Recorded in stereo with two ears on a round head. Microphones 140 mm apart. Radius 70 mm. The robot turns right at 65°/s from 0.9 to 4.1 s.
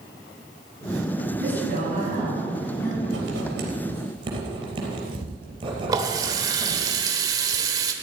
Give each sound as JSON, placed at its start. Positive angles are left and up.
{"t": 1.4, "sound": "a woman speaking", "azimuth_deg": -80, "distance_m": 5.5}
{"t": 3.0, "sound": "writing", "side_deg": -80, "distance_m": 3.5}
{"t": 5.9, "sound": "a running tap", "side_deg": -20, "distance_m": 1.2}